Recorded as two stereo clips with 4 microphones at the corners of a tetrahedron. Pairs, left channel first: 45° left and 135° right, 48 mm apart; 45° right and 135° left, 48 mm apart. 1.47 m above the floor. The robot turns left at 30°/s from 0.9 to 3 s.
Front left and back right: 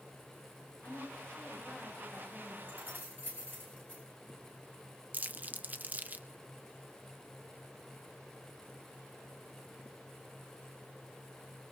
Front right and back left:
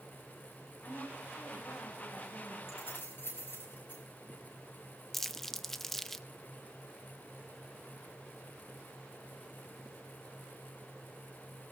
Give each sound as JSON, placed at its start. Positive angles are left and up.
{"t": 0.8, "sound": "a woman speaking", "azimuth_deg": -5, "distance_m": 5.0}
{"t": 2.7, "sound": "keys jangling", "azimuth_deg": -80, "distance_m": 9.0}
{"t": 5.1, "sound": "crumpling", "azimuth_deg": -125, "distance_m": 0.6}